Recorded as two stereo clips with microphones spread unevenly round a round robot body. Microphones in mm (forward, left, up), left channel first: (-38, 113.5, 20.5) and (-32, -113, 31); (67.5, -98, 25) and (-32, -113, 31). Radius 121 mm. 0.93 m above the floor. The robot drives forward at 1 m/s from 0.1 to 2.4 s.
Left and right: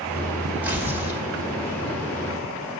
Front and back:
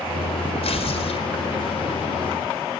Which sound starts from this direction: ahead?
Tearing paper, at 0.6 s.